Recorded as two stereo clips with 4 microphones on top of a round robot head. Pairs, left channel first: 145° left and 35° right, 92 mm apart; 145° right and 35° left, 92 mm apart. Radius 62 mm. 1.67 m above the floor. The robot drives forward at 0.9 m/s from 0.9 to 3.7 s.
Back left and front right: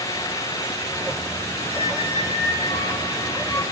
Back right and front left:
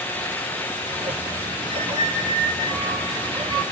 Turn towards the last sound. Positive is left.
turn(degrees=170)